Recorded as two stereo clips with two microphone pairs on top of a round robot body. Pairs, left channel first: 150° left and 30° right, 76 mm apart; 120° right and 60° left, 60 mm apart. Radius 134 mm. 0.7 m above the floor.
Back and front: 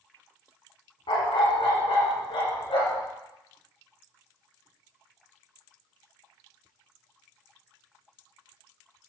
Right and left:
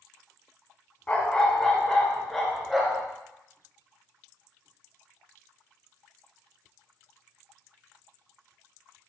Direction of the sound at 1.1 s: 170° left.